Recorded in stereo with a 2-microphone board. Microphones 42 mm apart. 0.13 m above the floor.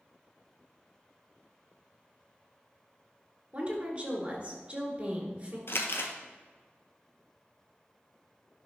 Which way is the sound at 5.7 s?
65° left (ahead or behind).